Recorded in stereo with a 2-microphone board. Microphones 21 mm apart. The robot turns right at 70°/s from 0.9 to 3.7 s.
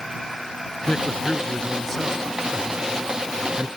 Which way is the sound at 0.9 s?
90° left.